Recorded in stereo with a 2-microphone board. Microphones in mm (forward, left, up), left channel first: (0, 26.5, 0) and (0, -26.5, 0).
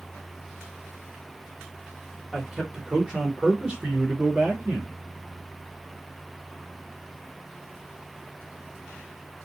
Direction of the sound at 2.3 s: 10° right (ahead or behind).